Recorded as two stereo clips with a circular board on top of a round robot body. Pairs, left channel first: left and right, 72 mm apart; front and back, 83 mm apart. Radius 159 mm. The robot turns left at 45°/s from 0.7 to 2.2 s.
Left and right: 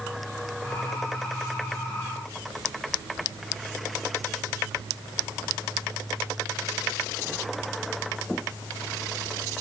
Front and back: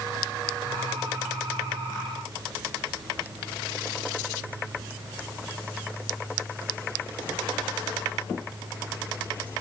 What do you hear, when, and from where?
Only background noise.